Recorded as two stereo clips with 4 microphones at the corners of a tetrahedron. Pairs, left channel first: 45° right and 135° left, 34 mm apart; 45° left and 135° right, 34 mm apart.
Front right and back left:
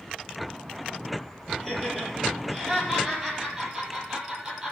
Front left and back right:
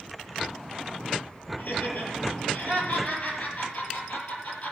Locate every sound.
1.6 s laughter: 40° left, 6 m; by 4.7 s 60° left, 5.5 m